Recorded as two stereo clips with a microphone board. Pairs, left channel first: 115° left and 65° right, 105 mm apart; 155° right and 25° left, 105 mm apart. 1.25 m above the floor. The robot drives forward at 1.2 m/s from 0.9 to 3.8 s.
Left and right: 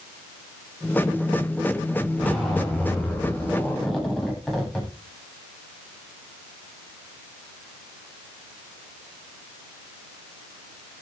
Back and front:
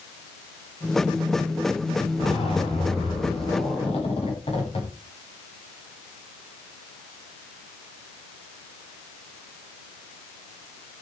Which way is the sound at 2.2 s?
160° right.